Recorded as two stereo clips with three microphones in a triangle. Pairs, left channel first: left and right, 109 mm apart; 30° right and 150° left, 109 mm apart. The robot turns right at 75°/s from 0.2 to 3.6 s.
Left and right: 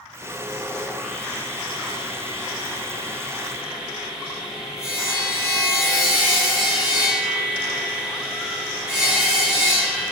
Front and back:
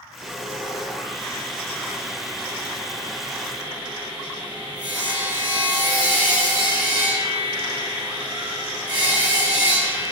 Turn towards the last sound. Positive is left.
turn(degrees=-170)